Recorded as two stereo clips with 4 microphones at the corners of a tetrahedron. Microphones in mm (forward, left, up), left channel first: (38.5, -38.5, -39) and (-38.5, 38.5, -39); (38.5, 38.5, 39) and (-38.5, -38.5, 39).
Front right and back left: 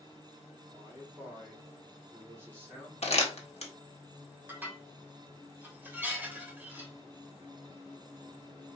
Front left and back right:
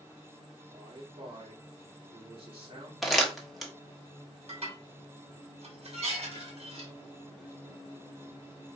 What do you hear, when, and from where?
0.7 s a man speaking: 160° right, 2.5 m
3.0 s crumpling: 45° right, 1.2 m
4.5 s dishes clattering: 150° right, 1.7 m